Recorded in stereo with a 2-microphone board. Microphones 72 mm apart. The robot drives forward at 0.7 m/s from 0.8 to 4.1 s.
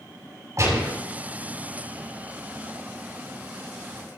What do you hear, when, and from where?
0.6 s a gunshot: 50° right (ahead or behind), 6.5 m